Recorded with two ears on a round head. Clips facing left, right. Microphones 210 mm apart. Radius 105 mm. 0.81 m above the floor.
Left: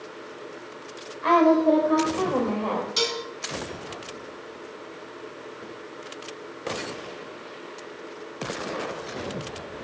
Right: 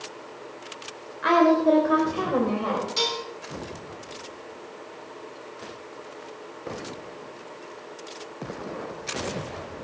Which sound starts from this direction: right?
A woman speaking, at 1.2 s.